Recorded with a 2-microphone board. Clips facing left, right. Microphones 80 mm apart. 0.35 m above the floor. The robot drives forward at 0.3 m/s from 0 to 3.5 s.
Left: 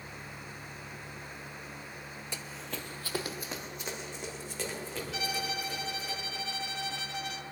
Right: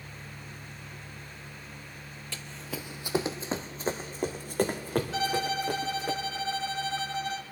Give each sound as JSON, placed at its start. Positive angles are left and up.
{"t": 2.3, "sound": "running footsteps", "side_deg": 20, "distance_m": 0.5}
{"t": 5.1, "sound": "a violin", "side_deg": -35, "distance_m": 0.8}